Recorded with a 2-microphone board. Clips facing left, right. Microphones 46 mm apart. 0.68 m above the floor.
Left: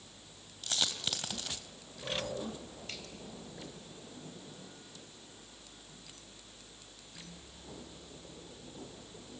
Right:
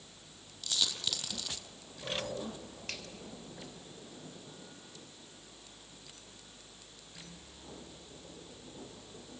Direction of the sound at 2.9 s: 60° right (ahead or behind).